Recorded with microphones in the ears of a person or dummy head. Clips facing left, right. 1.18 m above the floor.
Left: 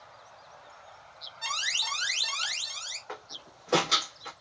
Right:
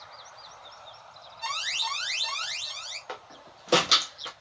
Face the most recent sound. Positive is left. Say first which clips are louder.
# right 1 dB
turn(degrees=-45)  # may be behind; listen again after turning